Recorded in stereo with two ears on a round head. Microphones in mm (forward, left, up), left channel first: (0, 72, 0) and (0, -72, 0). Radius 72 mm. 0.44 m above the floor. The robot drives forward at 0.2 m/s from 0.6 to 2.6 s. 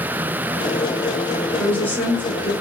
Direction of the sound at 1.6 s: 10° left (ahead or behind).